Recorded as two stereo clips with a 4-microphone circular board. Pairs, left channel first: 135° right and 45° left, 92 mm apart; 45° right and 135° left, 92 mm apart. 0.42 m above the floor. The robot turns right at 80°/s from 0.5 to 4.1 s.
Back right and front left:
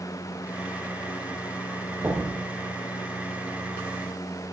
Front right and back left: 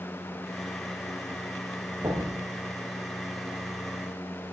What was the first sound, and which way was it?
Knocking, 85° left.